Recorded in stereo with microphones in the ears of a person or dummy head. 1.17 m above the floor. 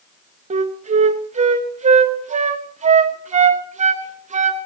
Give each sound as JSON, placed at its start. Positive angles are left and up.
{"t": 0.5, "sound": "a flute", "side_deg": -35, "distance_m": 1.1}